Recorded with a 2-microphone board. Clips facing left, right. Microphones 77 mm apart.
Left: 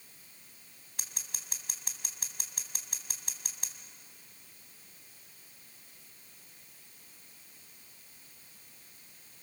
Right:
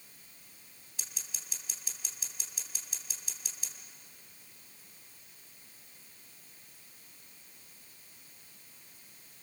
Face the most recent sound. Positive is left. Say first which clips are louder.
# left 2 dB
turn(degrees=55)  # may be behind; listen again after turning